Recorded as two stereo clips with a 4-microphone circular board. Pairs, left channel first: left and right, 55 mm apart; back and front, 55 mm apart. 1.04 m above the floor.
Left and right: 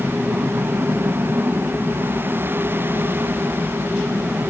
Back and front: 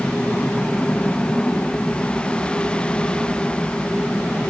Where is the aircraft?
155° left.